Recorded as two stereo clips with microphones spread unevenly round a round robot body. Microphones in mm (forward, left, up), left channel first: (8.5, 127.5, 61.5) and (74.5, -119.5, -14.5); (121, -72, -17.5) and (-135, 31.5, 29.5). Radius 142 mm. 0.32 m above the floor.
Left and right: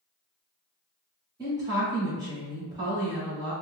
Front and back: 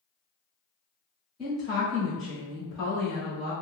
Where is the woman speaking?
95° right, 1.4 m.